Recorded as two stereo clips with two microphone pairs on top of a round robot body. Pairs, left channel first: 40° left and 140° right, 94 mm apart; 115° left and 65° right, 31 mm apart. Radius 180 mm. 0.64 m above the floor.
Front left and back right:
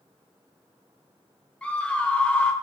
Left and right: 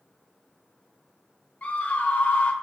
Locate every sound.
1.6 s a scream: 110° left, 0.8 m